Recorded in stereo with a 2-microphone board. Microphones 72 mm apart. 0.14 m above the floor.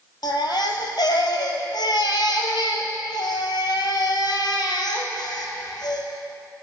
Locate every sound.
0.2 s a baby crying: 70° left (ahead or behind), 1.7 m